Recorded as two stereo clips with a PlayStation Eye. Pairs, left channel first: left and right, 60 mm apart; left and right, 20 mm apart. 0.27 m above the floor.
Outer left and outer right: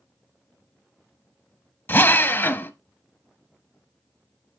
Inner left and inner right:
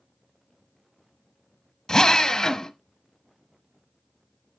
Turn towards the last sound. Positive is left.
turn(degrees=35)  # may be behind; listen again after turning